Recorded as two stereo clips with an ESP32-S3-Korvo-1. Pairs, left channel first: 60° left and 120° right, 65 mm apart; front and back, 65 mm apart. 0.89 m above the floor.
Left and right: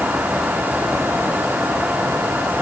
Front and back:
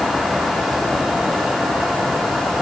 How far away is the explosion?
No explosion in this recording.